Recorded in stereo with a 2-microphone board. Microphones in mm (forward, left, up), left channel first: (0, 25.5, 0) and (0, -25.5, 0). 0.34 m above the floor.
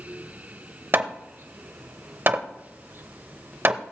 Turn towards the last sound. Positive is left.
turn(degrees=-45)  # may be behind; listen again after turning